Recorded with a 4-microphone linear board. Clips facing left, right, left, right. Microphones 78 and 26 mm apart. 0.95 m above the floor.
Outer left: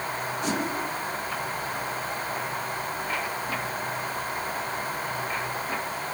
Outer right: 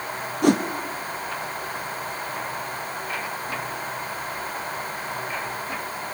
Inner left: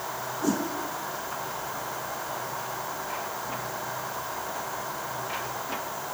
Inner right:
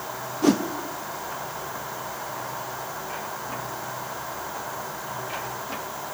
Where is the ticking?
I don't hear ticking.